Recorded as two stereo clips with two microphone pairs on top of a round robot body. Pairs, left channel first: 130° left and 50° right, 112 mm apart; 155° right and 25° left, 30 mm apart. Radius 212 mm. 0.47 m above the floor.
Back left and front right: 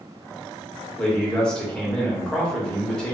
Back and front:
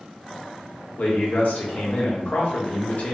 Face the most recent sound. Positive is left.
turn(degrees=-150)